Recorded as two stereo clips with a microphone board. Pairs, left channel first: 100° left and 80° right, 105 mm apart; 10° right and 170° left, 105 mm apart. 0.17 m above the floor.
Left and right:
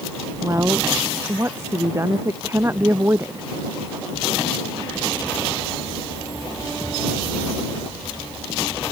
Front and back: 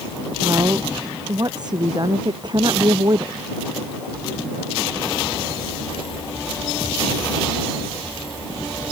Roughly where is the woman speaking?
Behind right.